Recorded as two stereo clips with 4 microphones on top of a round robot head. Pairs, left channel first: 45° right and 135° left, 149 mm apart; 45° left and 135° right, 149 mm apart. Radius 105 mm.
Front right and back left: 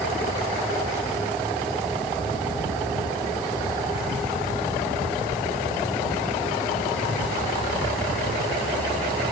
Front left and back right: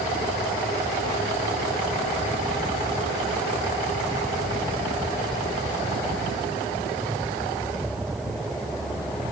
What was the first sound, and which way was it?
Only background noise.